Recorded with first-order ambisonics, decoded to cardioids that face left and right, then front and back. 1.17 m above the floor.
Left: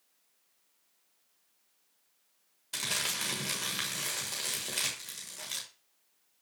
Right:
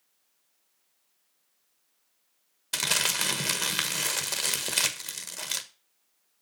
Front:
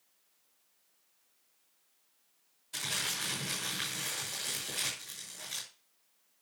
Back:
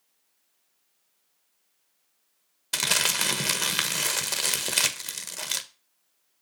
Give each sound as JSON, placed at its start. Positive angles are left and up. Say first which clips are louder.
{"t": 2.7, "sound": "crumpling", "louder": "right 6 dB, back 11 dB", "azimuth_deg": -150, "distance_m": 1.3}